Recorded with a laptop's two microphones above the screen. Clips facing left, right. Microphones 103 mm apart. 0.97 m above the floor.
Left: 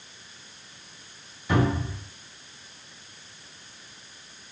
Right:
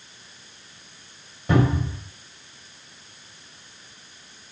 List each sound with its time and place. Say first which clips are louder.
1.5 s a cupboard door: right 3 dB; 70° right (ahead or behind), 1.5 m